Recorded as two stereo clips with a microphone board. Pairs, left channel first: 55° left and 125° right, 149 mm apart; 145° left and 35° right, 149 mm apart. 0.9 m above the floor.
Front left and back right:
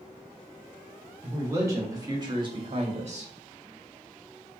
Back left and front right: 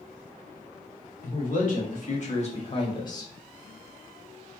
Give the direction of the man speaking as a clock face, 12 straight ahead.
7 o'clock.